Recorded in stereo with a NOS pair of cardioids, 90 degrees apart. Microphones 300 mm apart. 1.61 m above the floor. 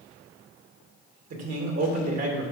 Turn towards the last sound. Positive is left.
turn(degrees=-60)